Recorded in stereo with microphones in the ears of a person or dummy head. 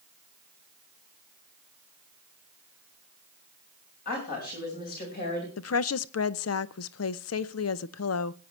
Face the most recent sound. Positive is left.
turn(degrees=75)  # may be behind; listen again after turning